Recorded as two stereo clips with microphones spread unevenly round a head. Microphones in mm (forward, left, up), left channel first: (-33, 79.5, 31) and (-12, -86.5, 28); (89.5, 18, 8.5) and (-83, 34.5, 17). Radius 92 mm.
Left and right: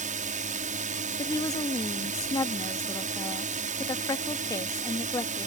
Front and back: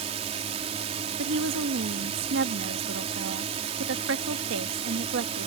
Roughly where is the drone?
Behind right.